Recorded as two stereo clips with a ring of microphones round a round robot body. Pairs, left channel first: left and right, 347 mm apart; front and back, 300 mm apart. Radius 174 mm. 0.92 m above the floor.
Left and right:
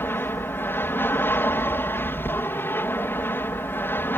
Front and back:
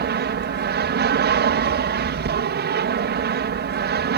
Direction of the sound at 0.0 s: 170° left.